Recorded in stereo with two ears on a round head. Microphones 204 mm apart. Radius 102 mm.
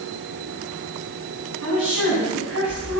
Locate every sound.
1.6 s a woman speaking: 60° right (ahead or behind), 9 m